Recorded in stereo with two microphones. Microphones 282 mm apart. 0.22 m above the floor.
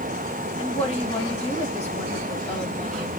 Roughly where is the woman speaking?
Left.